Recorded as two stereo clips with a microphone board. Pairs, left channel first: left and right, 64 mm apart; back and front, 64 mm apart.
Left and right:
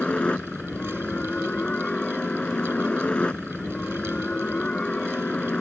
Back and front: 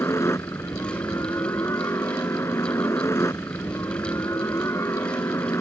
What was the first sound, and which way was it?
A helicopter, 160° left.